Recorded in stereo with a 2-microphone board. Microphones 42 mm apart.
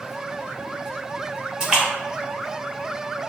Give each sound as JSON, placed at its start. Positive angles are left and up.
{"t": 1.6, "sound": "a splash", "side_deg": -15, "distance_m": 0.8}